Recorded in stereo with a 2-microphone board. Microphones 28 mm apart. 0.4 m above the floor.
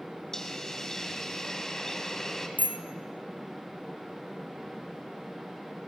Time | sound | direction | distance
0.3 | a hiss | 20° left (ahead or behind) | 2.5 m
2.6 | a bicycle bell | 65° right (ahead or behind) | 2 m